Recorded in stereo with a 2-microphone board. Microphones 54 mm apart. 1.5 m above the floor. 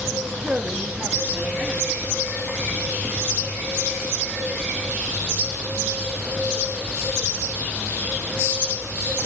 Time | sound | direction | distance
0.4 | a man speaking | 15° right (ahead or behind) | 1.9 m